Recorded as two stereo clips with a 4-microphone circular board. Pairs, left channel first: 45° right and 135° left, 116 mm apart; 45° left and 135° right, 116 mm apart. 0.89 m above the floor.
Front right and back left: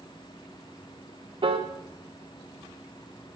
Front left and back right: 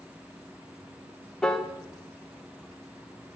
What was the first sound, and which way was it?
A piano, 130° left.